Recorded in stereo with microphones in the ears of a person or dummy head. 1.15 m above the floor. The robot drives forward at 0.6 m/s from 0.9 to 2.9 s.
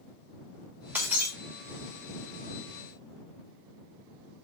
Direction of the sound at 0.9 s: 5° right (ahead or behind).